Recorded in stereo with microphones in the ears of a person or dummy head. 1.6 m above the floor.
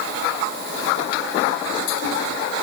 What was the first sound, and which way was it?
Only background noise.